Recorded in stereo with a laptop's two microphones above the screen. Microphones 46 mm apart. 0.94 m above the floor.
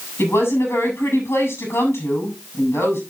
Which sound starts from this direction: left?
A woman speaking, at 0.2 s.